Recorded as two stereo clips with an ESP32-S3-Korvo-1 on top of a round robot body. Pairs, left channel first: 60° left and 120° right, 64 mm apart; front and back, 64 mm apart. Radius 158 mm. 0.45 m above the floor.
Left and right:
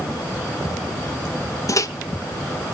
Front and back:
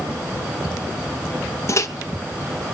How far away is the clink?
No clink in this recording.